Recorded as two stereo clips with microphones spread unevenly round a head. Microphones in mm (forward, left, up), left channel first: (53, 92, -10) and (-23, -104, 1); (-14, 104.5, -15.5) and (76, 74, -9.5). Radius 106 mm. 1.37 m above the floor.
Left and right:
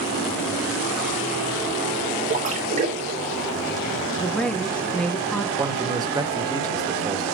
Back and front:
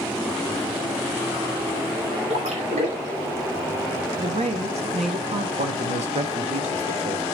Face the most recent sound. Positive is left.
turn(degrees=-40)